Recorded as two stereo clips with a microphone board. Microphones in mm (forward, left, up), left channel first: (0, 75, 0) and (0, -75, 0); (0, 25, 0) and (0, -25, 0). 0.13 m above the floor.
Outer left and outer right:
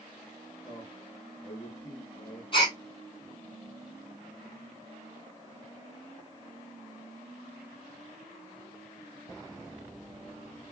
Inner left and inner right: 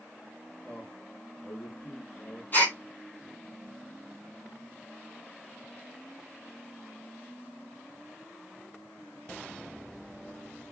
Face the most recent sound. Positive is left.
turn(degrees=35)  # may be behind; listen again after turning